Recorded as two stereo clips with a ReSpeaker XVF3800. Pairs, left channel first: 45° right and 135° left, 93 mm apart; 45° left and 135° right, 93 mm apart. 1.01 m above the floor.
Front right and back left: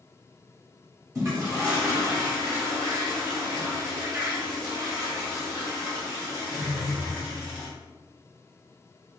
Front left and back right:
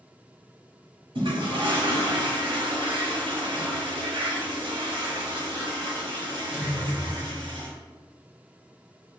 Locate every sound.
1.1 s a toilet flushing: 165° right, 0.9 m